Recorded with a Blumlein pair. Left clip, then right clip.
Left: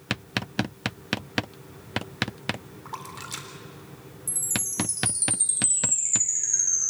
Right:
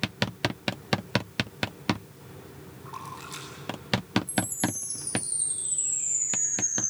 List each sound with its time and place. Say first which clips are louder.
2.9 s a splash: left 2 dB; 20° left, 3.5 m
4.3 s a chime: right 2 dB; 50° left, 6.5 m